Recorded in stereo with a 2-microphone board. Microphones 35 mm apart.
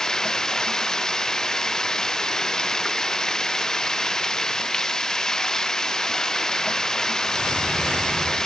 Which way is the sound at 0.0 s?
20° left (ahead or behind).